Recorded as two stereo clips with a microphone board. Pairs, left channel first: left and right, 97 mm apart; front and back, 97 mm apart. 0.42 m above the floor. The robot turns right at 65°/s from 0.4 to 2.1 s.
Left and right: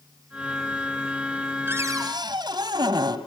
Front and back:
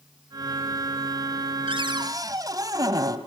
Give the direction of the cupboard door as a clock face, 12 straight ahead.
5 o'clock.